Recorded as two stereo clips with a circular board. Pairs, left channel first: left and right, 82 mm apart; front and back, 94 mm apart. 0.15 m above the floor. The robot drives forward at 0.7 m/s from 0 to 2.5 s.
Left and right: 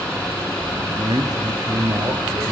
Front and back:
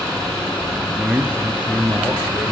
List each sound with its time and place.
0.8 s a man speaking: 95° right, 2.5 m; by 2.5 s 125° right, 2.5 m